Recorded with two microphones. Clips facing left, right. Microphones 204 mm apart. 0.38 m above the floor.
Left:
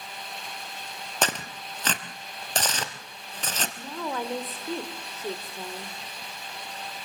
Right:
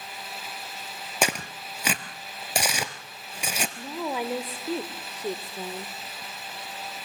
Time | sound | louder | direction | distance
1.2 | tearing paper | right 2 dB | 10° right (ahead or behind) | 1.4 m
3.8 | a woman speaking | right 2 dB | 10° right (ahead or behind) | 1.3 m